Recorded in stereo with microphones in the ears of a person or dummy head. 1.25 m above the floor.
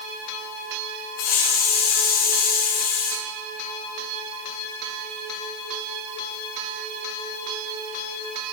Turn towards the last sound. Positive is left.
turn(degrees=45)  # may be behind; listen again after turning